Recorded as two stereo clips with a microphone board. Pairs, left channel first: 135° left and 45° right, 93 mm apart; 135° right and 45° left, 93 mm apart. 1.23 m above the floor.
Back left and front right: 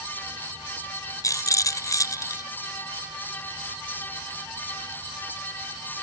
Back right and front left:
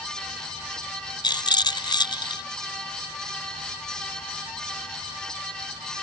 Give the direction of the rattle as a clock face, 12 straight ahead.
6 o'clock.